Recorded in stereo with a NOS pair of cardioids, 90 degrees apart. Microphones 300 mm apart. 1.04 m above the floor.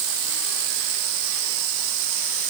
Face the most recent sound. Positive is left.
No sound to turn to.